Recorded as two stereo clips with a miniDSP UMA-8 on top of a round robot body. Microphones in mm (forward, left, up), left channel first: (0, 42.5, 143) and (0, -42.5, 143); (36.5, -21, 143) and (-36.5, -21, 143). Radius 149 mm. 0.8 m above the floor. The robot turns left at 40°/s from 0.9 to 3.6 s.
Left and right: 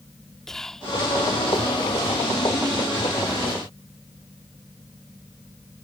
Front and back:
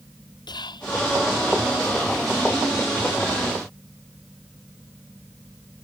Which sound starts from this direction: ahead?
Whispering, at 0.5 s.